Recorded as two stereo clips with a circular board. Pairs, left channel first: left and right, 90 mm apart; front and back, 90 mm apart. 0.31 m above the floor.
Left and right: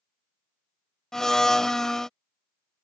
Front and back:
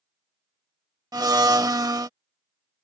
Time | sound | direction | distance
1.1 | a blender | 170° left | ?